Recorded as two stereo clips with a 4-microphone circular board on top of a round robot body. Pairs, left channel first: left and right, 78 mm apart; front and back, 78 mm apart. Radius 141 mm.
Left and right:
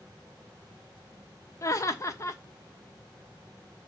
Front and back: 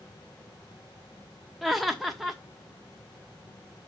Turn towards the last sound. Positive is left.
turn(degrees=90)